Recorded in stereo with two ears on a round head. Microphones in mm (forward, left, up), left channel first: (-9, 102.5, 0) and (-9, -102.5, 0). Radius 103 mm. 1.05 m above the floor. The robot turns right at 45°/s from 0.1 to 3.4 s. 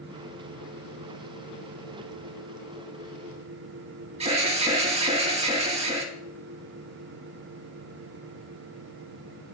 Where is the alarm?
25° right (ahead or behind), 2 m.